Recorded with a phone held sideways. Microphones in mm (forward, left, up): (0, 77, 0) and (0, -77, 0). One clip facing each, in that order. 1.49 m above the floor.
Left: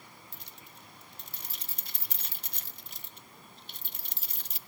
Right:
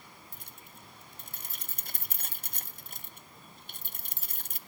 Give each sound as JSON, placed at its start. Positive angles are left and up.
{"t": 0.3, "sound": "keys jangling", "side_deg": -50, "distance_m": 0.8}